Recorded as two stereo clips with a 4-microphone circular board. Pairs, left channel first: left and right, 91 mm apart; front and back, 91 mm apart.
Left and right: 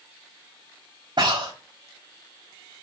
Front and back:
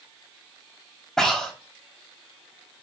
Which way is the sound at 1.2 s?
85° right.